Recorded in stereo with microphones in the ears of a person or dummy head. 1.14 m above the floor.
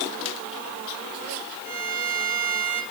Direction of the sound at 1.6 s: 75° right (ahead or behind).